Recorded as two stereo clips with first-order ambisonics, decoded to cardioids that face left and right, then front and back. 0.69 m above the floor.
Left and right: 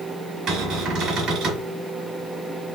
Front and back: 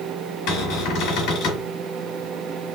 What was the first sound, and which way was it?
A cupboard door, 35° right.